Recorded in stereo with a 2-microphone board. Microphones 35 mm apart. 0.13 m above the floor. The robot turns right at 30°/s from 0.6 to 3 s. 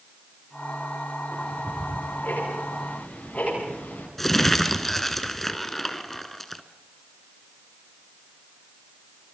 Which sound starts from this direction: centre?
Crumpling, at 4.2 s.